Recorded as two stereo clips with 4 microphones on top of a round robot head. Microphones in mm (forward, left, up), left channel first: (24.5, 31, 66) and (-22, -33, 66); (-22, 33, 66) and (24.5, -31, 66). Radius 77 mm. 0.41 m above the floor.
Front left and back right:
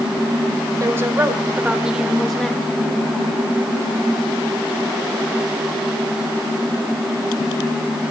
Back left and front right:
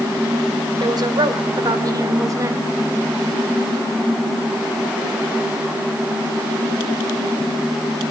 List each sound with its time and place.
0.8 s a woman speaking: 75° right, 2 m; by 2.6 s 15° right, 1.5 m